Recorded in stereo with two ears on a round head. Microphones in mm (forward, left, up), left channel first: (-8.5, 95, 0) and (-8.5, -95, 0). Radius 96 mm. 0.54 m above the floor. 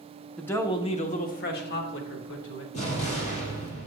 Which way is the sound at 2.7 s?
35° left (ahead or behind).